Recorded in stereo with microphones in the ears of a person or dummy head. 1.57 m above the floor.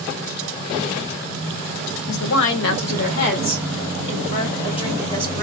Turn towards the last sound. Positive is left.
turn(degrees=25)  # may be behind; listen again after turning